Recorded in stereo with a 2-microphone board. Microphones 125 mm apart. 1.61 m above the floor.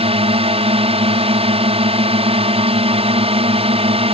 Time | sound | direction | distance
0.0 | a drone | 50° right (ahead or behind) | ?